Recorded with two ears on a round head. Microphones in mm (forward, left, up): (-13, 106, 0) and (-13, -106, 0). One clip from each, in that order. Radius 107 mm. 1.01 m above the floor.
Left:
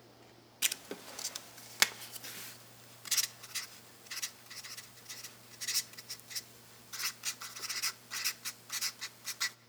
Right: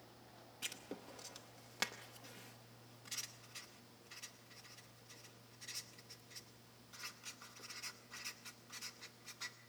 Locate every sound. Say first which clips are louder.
0.6 s writing: left 11 dB; 45° left (ahead or behind), 0.6 m